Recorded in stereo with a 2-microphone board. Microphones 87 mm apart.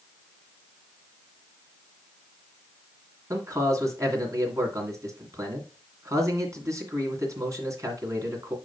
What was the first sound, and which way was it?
A man speaking, 35° right (ahead or behind).